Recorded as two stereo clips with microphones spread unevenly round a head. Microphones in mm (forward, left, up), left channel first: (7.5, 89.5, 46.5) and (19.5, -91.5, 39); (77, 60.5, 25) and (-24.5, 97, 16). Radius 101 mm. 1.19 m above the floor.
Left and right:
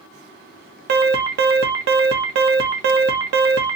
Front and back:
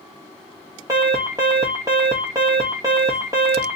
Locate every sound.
0.9 s an alarm: 125° right, 0.9 m